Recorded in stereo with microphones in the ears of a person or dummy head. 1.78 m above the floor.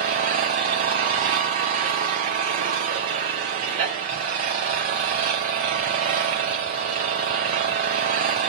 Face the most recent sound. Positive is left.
turn(degrees=-30)  # may be behind; listen again after turning